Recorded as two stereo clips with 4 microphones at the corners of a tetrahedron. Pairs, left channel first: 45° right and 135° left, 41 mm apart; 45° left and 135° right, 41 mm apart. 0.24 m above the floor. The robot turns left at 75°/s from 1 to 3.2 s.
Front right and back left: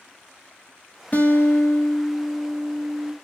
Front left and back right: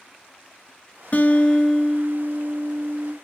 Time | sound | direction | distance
1.1 | a guitar | straight ahead | 1.1 m